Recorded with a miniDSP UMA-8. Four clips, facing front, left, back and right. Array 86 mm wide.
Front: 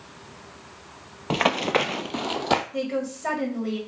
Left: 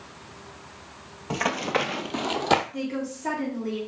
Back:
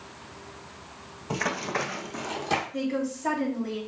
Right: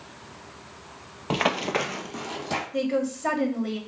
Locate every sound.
1.3 s running footsteps: 30° right, 0.5 m; by 2.6 s 55° left, 0.7 m
2.7 s a woman speaking: 50° right, 1.7 m